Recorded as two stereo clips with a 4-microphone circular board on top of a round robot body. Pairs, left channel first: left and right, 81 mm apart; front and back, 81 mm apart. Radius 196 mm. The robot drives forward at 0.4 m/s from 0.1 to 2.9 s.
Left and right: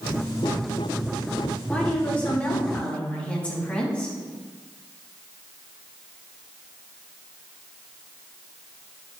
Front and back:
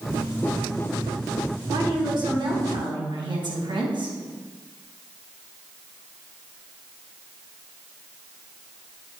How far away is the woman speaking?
About 3 m.